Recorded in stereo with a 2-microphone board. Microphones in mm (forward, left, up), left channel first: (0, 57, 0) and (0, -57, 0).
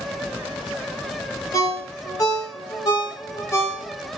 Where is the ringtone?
30° left (ahead or behind), 0.8 m.